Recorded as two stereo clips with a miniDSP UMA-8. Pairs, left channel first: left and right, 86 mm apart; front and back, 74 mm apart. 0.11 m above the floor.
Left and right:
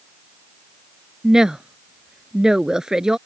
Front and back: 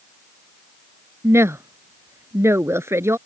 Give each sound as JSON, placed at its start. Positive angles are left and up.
{"t": 1.2, "sound": "a woman speaking", "azimuth_deg": -170}